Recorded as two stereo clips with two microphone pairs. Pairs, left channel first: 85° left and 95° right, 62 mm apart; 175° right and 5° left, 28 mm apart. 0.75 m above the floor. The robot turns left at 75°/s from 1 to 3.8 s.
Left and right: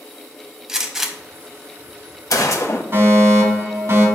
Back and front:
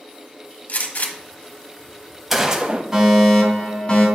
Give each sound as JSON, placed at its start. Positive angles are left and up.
{"t": 0.7, "sound": "a gunshot", "azimuth_deg": 180, "distance_m": 1.1}
{"t": 2.9, "sound": "a fire alarm", "azimuth_deg": -55, "distance_m": 2.5}